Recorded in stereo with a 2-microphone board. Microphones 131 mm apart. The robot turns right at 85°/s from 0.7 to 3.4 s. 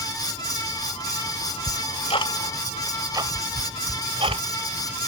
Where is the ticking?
60° left (ahead or behind); by 4.4 s 45° right (ahead or behind).